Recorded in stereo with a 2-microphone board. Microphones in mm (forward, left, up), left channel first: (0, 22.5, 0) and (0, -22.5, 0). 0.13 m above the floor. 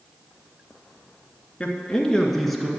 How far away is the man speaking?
About 1.5 m.